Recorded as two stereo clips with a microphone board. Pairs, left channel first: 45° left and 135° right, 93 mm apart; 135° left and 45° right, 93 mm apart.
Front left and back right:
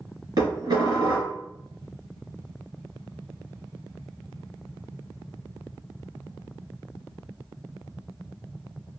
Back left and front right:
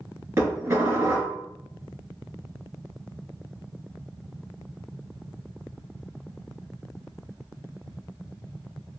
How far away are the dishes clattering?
About 1.5 m.